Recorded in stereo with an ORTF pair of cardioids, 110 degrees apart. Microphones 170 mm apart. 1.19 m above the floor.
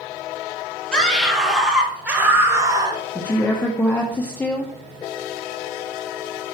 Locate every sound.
0.9 s a scream: 5° left, 3.5 m; by 3.0 s 25° right, 2.5 m
3.1 s a woman speaking: 10° left, 0.9 m